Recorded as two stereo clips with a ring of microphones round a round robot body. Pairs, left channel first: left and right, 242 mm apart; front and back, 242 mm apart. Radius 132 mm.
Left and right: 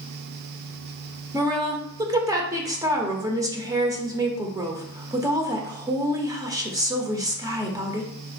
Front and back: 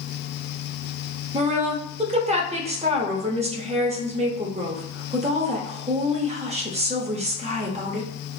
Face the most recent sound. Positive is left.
turn(degrees=-150)